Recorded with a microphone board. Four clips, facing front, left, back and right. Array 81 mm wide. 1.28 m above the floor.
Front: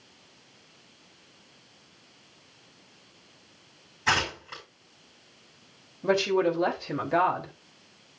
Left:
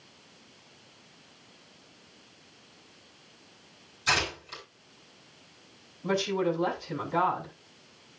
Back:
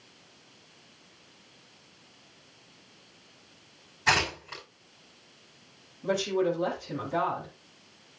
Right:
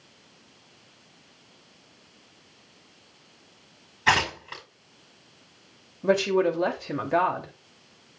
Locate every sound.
4.1 s tearing paper: 90° right, 5.5 m
6.0 s a woman speaking: 60° right, 3 m